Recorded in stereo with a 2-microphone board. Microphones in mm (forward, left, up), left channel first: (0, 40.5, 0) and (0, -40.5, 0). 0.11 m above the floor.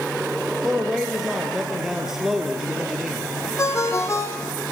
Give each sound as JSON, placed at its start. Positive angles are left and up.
{"t": 0.6, "sound": "a man speaking", "side_deg": -5, "distance_m": 2.5}
{"t": 3.6, "sound": "a ringtone", "side_deg": 35, "distance_m": 3.5}